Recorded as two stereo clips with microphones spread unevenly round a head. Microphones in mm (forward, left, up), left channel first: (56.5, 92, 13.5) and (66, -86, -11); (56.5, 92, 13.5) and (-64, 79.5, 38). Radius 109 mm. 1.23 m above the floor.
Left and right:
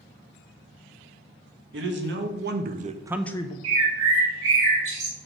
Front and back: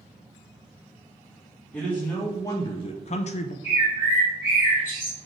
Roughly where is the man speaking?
Right.